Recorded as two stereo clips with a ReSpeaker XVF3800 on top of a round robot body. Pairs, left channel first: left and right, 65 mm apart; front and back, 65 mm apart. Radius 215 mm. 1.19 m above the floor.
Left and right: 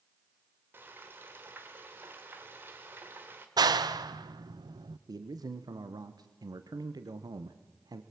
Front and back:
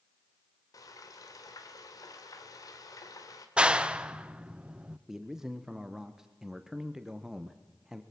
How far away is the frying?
About 1.8 m.